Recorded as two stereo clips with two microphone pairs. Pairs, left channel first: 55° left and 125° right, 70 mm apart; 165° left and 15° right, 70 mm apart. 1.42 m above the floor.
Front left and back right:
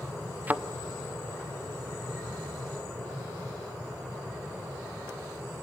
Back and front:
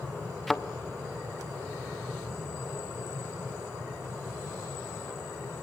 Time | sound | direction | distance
0.5 | a thud | 115° right | 0.9 m